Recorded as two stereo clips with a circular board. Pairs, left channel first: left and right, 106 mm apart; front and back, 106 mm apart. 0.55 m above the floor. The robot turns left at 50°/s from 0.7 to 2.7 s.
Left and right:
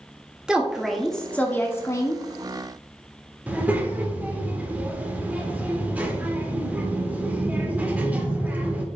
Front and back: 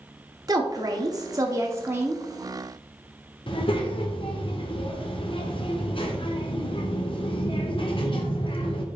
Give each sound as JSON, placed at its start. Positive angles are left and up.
{"t": 0.5, "sound": "a woman speaking", "azimuth_deg": -170, "distance_m": 1.1}
{"t": 3.5, "sound": "a child speaking", "azimuth_deg": -15, "distance_m": 1.3}